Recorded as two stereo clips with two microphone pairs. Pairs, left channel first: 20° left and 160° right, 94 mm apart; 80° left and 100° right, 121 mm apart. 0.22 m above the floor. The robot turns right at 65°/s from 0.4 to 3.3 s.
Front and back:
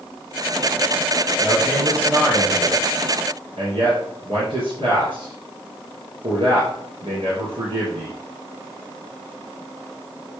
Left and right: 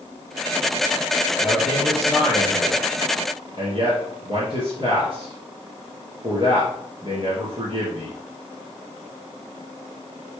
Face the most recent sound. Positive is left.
turn(degrees=-140)